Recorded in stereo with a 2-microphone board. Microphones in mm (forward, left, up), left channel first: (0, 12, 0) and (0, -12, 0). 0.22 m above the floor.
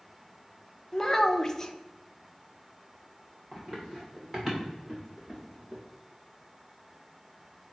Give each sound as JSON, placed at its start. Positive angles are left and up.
{"t": 0.9, "sound": "a child speaking", "side_deg": 20, "distance_m": 0.6}
{"t": 3.5, "sound": "running footsteps", "side_deg": -10, "distance_m": 3.0}